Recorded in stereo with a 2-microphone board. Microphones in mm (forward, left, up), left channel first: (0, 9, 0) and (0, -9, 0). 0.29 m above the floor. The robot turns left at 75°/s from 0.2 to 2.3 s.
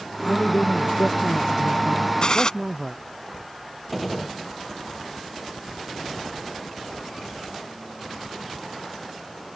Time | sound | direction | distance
0.2 | a man speaking | 135° left | ?
2.2 | a gunshot | 45° left (ahead or behind) | ?
3.9 | a gunshot | centre (ahead or behind) | ?